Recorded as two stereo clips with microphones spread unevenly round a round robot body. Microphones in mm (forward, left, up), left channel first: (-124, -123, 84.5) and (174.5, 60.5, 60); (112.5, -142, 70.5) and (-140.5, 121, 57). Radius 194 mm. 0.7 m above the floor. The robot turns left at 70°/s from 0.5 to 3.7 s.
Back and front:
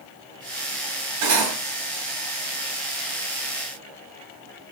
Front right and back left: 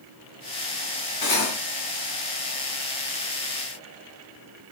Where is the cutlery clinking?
25° left, 1.4 m; by 1.6 s 5° left, 1.4 m.